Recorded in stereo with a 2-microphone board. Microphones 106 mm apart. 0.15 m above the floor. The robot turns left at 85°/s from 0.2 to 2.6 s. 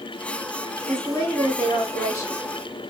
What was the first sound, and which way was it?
A woman speaking, straight behind.